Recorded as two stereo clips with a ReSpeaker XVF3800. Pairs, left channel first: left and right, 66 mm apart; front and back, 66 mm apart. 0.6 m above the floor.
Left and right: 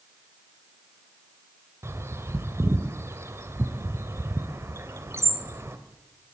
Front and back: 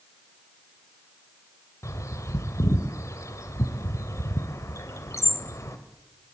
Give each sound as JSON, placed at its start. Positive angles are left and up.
{"t": 1.8, "sound": "a bird", "azimuth_deg": -40, "distance_m": 1.8}